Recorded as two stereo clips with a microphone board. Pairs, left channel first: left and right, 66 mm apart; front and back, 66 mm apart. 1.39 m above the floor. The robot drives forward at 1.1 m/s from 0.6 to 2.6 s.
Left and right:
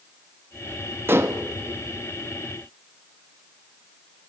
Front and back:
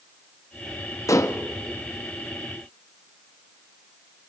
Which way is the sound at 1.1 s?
35° right.